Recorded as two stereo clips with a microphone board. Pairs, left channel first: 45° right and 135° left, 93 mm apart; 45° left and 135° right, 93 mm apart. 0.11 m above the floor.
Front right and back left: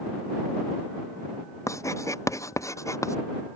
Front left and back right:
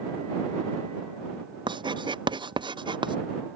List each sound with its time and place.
1.7 s writing: 100° right